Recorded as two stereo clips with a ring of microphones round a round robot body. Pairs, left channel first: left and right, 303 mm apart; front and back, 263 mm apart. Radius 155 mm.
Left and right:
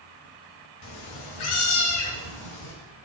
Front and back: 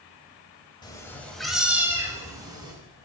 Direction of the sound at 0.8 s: 75° left.